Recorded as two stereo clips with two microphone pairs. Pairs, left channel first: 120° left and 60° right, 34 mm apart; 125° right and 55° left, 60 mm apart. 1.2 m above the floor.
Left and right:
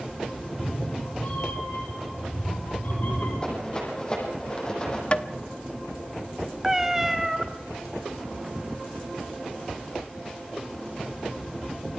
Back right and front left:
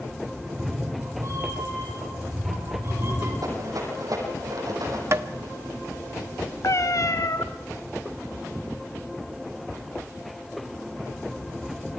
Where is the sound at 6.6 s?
140° right, 1.4 m.